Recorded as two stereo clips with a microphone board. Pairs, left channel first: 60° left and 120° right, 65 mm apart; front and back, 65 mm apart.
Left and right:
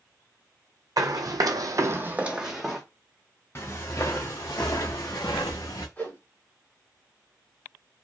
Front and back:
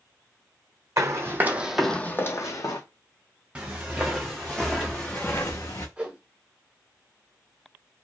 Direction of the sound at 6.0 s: 110° left.